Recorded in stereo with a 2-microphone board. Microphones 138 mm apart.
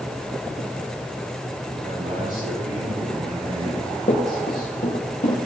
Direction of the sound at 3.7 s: 75° left (ahead or behind).